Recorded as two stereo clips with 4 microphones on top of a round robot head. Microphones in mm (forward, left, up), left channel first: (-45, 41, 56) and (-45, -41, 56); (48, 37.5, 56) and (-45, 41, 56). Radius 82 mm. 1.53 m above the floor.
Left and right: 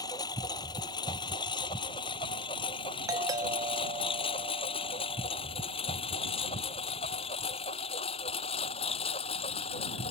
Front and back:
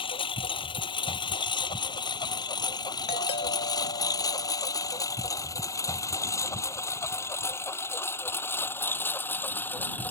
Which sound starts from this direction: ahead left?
A lawn mower, at 0.0 s.